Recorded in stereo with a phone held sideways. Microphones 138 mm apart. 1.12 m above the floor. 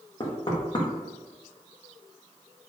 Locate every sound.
0.2 s knocking: 35° left (ahead or behind), 1.4 m